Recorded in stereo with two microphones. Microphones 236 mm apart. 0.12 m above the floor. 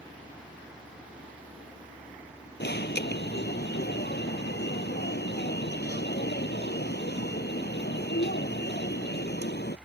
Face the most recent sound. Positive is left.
turn(degrees=45)  # may be behind; listen again after turning